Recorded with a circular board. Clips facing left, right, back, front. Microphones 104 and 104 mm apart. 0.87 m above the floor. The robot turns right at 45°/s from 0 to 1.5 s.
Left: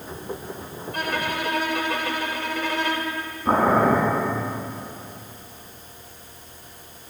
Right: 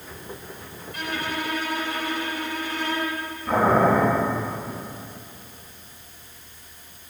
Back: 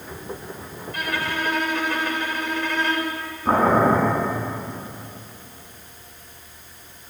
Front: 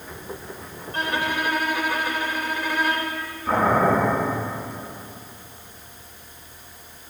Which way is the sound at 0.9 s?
55° left.